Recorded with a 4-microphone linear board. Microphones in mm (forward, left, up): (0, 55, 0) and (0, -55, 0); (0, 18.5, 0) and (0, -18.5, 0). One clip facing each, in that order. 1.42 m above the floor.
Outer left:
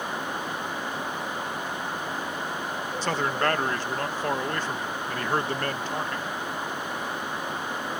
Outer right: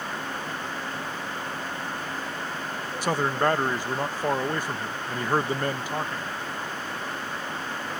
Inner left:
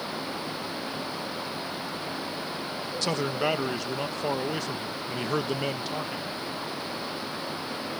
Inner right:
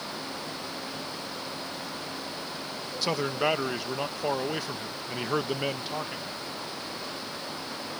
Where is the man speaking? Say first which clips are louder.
Outer right 2 dB, inner right 1 dB; 10° right (ahead or behind).